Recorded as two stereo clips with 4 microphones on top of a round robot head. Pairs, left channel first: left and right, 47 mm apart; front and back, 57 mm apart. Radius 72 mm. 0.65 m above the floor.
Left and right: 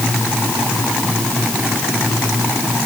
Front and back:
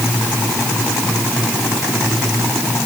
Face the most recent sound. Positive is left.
No sound to turn to.